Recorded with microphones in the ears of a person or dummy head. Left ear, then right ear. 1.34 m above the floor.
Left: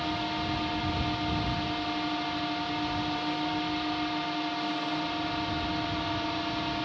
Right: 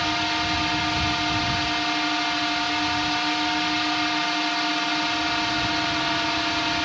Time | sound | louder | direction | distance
0.0 | a drone | right 8 dB | 50° right (ahead or behind) | ?